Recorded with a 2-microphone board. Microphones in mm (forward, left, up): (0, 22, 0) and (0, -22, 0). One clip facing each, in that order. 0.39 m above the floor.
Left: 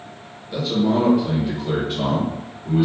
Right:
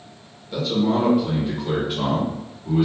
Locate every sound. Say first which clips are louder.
0.5 s a man speaking: left 1 dB; 5° left (ahead or behind), 0.8 m; by 2.9 s 5° right (ahead or behind), 1.3 m